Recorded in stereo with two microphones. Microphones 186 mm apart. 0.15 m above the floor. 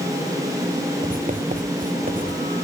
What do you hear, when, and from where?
1.0 s writing: 50° right (ahead or behind), 1.9 m